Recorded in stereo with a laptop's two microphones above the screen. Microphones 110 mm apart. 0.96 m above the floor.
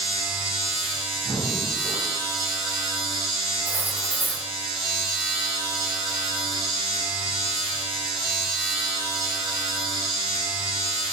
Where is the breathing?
15° right (ahead or behind), 1.1 m.